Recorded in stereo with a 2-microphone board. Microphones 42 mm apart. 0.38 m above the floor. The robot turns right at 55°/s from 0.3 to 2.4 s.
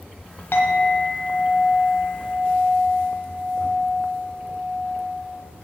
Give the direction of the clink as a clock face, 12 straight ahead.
8 o'clock.